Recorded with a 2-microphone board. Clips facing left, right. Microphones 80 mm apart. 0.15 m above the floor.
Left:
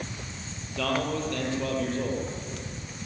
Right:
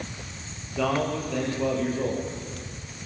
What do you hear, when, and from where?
0.8 s a man speaking: 10° right (ahead or behind), 5.5 m